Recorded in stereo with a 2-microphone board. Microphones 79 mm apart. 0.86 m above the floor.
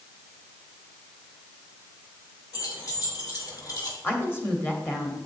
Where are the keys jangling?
50° left (ahead or behind), 2.5 m.